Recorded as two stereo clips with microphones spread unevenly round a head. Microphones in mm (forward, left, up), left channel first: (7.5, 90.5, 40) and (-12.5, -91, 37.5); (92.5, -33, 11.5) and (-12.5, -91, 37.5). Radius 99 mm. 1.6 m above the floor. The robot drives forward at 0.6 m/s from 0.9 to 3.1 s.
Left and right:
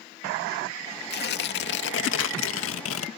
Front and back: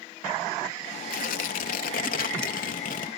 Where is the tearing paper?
45° left; by 3.1 s 75° left.